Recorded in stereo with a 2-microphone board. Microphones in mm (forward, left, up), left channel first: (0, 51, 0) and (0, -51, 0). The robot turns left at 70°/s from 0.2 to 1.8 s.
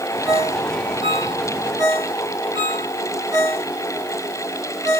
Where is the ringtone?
15° right (ahead or behind), 9 m; by 5.0 s 55° right (ahead or behind), 9 m.